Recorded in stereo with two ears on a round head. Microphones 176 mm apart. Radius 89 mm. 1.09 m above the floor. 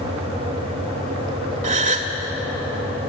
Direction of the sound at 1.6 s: 40° right (ahead or behind).